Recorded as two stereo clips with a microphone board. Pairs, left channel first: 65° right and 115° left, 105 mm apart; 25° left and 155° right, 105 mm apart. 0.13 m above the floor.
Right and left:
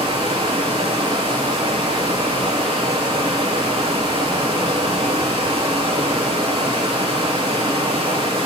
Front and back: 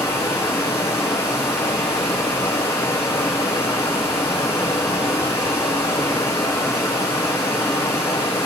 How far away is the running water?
About 1.2 m.